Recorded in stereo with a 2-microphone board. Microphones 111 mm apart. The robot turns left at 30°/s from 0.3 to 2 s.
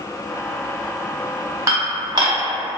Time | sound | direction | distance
1.7 | dishes clattering | 30° right (ahead or behind) | 0.9 m